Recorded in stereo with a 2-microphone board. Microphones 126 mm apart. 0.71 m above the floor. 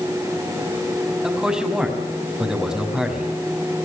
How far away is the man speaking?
About 5.5 m.